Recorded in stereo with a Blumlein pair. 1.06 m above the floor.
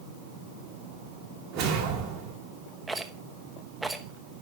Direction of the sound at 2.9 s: 10° right.